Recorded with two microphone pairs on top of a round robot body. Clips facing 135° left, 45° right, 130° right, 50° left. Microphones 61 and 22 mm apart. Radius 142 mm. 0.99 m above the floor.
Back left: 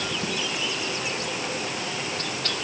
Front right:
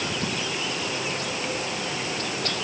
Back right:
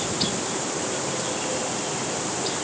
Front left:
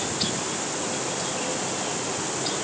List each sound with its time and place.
Only background noise.